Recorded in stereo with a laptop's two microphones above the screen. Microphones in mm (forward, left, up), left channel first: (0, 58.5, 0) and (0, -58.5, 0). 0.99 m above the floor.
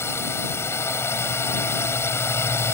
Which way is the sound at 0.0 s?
20° left (ahead or behind).